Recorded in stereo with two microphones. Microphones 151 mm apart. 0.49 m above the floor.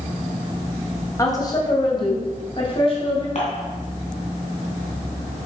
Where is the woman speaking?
25° left (ahead or behind), 2.5 m; by 3.2 s 45° left (ahead or behind), 3.5 m.